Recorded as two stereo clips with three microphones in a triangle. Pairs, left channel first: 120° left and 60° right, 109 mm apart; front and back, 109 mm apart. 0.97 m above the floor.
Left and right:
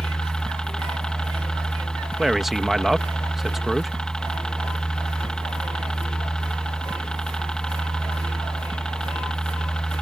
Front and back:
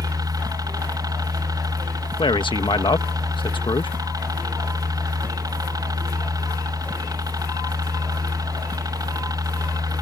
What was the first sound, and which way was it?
A helicopter, 160° right.